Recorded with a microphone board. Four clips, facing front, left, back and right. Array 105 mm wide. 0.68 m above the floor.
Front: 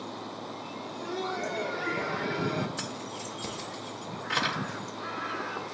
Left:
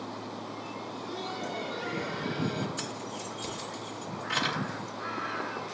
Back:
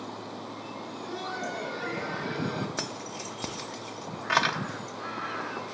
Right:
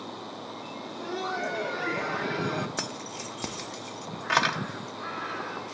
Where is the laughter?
85° right, 0.9 m.